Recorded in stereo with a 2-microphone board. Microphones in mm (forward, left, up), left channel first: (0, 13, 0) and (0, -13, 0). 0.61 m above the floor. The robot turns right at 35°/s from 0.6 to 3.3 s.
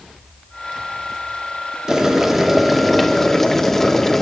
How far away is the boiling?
About 1.0 m.